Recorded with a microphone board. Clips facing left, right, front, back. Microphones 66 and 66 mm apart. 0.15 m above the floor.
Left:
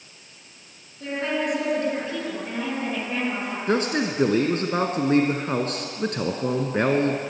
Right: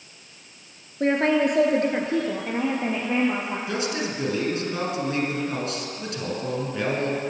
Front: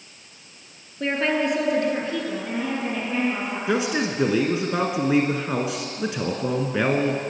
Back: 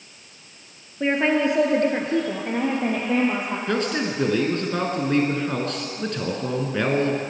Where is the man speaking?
75° left, 1.4 m.